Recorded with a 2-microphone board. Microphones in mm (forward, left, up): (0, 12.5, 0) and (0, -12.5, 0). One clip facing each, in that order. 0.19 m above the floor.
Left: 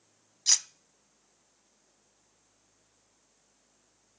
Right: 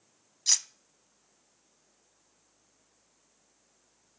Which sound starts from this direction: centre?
Cutlery clinking, at 0.5 s.